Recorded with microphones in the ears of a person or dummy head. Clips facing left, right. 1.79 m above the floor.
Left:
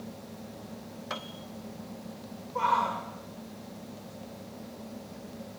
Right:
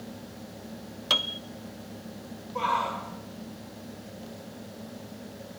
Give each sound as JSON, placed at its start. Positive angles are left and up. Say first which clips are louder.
{"t": 1.1, "sound": "a piano", "louder": "right 5 dB", "side_deg": -40, "distance_m": 1.0}
{"t": 2.5, "sound": "a shout", "louder": "left 1 dB", "side_deg": 10, "distance_m": 6.5}